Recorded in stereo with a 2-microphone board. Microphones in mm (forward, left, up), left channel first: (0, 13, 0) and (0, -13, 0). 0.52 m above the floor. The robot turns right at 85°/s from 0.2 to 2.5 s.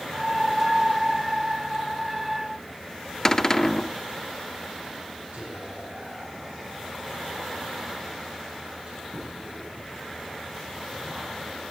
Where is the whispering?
60° right (ahead or behind), 7.5 m.